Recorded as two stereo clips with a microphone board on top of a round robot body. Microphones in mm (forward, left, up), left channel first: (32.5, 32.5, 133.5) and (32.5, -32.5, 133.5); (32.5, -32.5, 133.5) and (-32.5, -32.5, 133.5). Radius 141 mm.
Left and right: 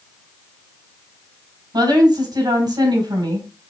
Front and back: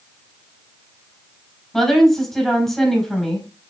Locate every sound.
1.7 s a woman speaking: 85° right, 4 m